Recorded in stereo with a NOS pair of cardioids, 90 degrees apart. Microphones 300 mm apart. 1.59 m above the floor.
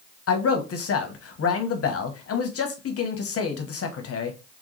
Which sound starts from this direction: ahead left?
A man speaking, at 0.3 s.